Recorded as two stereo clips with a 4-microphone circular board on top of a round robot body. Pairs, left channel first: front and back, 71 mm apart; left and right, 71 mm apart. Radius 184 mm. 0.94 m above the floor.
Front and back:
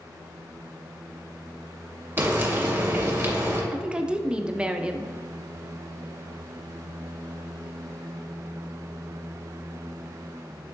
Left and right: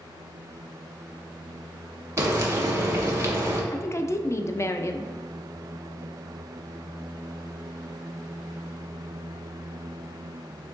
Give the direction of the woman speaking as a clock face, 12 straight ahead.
8 o'clock.